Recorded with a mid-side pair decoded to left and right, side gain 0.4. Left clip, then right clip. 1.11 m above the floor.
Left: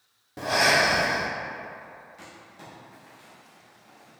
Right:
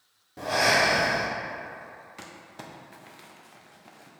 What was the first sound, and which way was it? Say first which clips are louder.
Breathing: left 1 dB; 40° left.